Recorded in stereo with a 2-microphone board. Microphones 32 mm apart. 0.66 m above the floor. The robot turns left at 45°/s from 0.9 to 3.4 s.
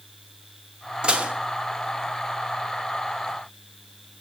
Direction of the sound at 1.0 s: 30° right (ahead or behind).